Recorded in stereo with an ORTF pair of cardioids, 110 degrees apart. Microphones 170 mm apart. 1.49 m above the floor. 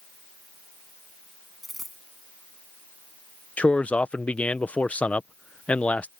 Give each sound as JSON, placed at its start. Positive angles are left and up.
{"t": 1.6, "sound": "a dropped coin", "azimuth_deg": 0}
{"t": 3.6, "sound": "a man speaking", "azimuth_deg": 10}